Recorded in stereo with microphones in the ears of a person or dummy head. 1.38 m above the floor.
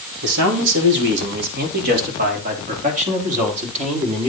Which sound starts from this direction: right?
A man speaking, at 0.2 s.